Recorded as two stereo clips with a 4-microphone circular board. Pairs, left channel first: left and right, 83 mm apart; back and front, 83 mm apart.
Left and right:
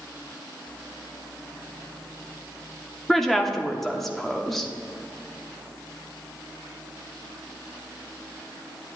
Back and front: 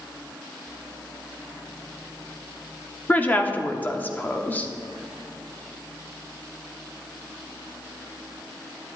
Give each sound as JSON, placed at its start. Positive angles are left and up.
{"t": 3.1, "sound": "a woman speaking", "azimuth_deg": 170, "distance_m": 0.7}